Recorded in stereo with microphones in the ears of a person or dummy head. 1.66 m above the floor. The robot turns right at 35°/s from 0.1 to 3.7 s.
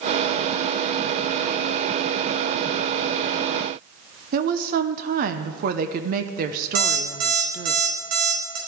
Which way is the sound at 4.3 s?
50° right (ahead or behind).